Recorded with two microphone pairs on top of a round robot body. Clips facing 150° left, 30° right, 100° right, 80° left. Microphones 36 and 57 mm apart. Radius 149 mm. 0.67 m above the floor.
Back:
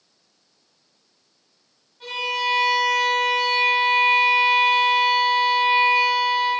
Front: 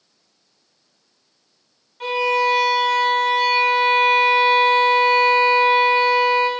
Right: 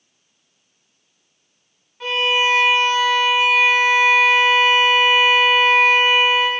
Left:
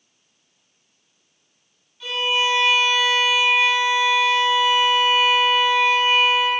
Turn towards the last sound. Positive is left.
turn(degrees=-50)